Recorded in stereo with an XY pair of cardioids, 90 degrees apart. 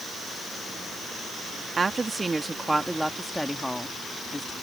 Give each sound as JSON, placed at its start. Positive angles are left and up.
{"t": 1.8, "sound": "a woman speaking", "azimuth_deg": -35}